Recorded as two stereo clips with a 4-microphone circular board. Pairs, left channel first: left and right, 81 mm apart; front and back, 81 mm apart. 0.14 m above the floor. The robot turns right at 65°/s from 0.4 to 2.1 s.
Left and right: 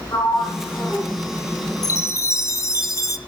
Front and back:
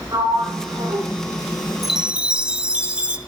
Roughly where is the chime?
Left.